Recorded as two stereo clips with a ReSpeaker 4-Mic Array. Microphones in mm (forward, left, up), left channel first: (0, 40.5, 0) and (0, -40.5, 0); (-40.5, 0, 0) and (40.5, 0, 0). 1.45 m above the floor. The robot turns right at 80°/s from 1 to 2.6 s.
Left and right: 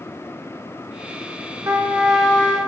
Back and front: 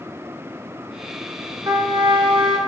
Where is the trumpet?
40° right, 1.3 m; by 2.6 s 35° left, 1.3 m.